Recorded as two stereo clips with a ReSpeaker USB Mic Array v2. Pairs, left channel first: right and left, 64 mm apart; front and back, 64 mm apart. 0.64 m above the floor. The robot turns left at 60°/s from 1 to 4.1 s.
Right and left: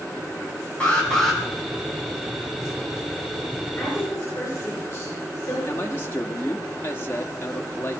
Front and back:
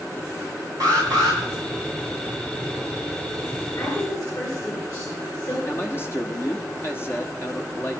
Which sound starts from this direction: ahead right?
A man speaking, at 5.7 s.